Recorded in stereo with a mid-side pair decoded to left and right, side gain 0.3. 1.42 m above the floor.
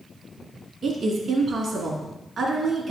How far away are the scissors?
I don't hear scissors.